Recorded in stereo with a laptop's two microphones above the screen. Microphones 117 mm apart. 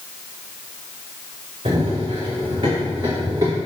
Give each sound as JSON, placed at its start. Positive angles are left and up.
{"t": 1.6, "sound": "running footsteps", "side_deg": -55, "distance_m": 3.0}